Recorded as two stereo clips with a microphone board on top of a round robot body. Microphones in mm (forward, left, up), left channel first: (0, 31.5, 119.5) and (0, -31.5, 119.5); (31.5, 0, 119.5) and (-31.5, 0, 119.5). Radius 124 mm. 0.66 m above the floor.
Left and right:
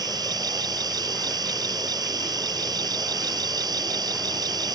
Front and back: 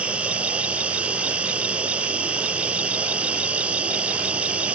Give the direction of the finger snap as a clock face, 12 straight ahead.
No finger snap in this recording.